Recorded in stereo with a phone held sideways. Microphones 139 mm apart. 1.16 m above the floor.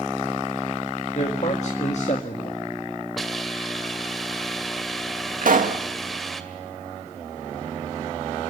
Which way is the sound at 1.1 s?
55° left (ahead or behind).